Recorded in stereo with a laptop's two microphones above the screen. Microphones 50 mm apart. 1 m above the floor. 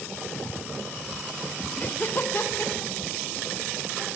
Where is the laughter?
35° left (ahead or behind), 0.6 m; by 4.0 s 55° left (ahead or behind), 1.8 m.